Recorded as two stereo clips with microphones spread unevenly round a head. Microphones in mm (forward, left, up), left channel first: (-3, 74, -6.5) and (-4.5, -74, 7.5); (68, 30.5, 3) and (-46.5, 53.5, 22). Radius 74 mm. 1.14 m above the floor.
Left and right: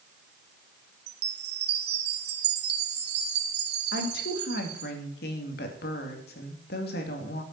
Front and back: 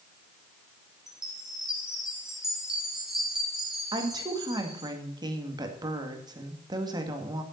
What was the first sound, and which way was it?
A chime, 105° right.